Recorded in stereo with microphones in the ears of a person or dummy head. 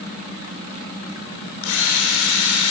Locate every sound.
1.6 s a drill: 70° left (ahead or behind), 6 m